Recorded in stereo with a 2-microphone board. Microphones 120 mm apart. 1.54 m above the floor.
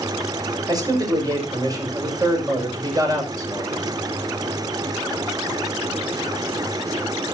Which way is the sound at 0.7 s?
30° right (ahead or behind).